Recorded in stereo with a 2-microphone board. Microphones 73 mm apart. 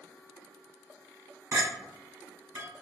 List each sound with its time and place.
1.5 s a clink: 40° right (ahead or behind), 1.1 m